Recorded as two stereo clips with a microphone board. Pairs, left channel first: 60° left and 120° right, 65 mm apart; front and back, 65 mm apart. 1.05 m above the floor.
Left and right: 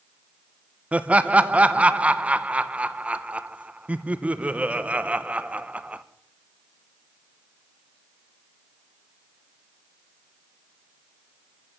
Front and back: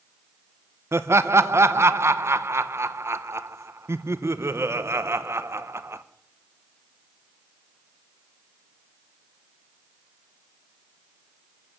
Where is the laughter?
Straight behind, 0.8 m.